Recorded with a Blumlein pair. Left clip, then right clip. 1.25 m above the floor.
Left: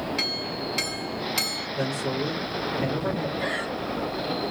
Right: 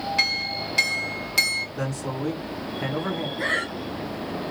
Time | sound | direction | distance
0.2 | a clink | 10° right | 1.9 m
1.8 | a man speaking | 5° left | 1.9 m
3.4 | breathing | 25° right | 1.1 m